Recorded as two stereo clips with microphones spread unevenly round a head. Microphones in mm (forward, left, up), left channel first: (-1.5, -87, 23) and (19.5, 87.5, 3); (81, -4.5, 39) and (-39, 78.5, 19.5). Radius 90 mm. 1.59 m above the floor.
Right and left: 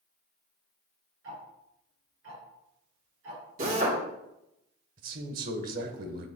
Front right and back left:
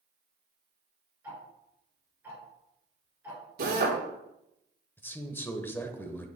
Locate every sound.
1.2 s ticking: 70° left, 3.5 m
3.6 s a drill: 130° left, 3 m
5.0 s a man speaking: 40° left, 1.2 m